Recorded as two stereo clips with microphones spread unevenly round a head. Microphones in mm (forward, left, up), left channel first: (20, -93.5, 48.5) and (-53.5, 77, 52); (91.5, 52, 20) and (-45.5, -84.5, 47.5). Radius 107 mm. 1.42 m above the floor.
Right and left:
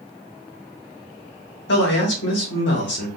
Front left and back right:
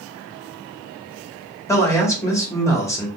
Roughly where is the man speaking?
Ahead right.